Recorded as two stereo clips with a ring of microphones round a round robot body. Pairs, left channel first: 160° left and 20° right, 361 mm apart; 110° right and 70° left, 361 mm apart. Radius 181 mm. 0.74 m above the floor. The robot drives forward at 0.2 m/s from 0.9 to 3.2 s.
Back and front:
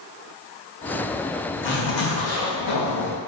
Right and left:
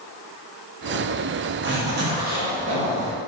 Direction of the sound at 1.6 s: 110° left.